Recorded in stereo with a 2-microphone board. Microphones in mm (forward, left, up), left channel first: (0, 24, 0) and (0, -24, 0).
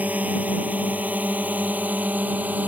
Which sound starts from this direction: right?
A drone, at 0.0 s.